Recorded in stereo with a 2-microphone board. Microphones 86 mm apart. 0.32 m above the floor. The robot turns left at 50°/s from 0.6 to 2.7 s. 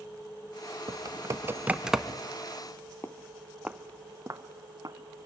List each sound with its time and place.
0.9 s typing on a keyboard: 60° right (ahead or behind), 0.6 m; by 2.2 s 5° left (ahead or behind), 0.6 m
3.0 s footsteps: 30° left (ahead or behind), 0.5 m; by 5.0 s 50° right (ahead or behind), 1.1 m